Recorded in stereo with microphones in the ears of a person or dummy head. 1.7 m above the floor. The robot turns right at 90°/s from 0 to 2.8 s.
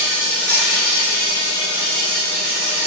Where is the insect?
25° right, 0.8 m; by 2.9 s 135° right, 0.8 m.